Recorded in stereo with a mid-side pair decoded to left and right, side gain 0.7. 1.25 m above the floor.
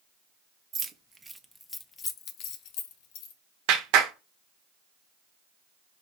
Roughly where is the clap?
Ahead right.